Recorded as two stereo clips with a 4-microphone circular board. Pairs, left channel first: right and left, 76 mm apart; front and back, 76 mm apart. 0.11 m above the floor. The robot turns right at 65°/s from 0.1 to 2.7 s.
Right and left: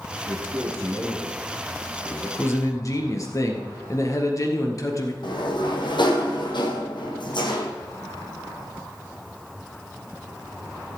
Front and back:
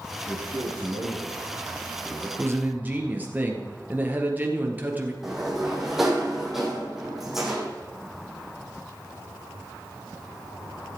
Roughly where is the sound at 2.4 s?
Behind right.